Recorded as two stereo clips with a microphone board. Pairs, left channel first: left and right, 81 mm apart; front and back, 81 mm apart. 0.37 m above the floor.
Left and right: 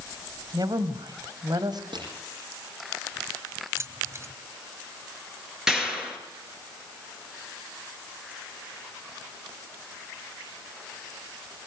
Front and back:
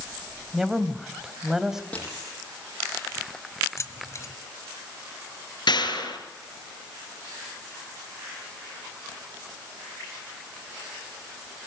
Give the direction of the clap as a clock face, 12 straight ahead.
12 o'clock.